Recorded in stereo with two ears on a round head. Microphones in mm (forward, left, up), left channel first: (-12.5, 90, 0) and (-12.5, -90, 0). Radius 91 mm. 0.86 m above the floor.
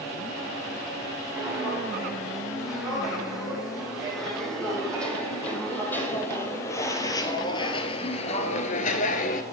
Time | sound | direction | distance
1.4 | footsteps | 5° right (ahead or behind) | 4 m